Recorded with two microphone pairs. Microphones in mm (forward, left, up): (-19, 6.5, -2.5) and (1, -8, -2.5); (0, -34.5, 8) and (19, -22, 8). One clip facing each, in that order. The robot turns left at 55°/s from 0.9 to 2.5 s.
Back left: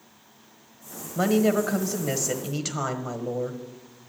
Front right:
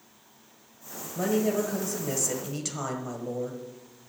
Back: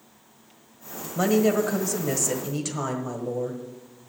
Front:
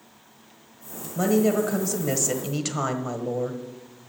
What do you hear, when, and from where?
1.1 s a woman speaking: 155° left, 1.4 m; by 3.6 s 85° left, 1.4 m